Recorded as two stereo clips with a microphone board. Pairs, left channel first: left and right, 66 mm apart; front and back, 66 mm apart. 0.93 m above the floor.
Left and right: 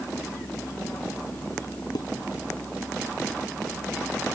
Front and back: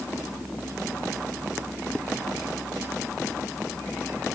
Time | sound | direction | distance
1.9 | dishes clattering | 75° left | ?